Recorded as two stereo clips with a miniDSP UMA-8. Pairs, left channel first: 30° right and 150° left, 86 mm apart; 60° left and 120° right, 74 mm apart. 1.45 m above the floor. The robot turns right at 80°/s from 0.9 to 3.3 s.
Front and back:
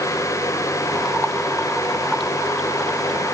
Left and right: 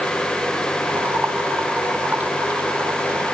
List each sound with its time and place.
Only background noise.